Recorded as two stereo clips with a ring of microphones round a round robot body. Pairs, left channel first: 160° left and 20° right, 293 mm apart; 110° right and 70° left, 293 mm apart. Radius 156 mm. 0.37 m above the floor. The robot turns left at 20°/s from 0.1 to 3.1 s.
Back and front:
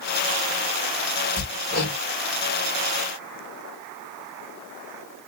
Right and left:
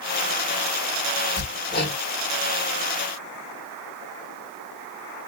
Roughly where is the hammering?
Behind right.